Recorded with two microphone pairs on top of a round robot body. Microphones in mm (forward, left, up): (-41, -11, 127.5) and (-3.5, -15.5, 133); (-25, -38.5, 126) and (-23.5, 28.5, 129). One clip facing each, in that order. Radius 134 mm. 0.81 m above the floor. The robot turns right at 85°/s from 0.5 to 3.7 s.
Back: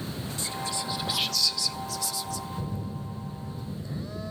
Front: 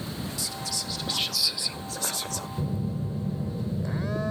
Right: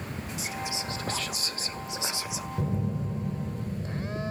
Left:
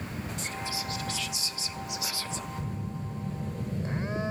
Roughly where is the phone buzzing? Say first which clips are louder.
Front 4 dB, right 6 dB; right.